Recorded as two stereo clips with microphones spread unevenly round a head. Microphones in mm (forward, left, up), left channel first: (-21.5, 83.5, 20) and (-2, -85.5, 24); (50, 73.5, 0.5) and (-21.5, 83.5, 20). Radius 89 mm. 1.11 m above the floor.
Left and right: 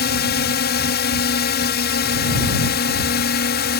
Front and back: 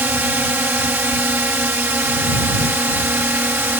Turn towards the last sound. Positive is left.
turn(degrees=110)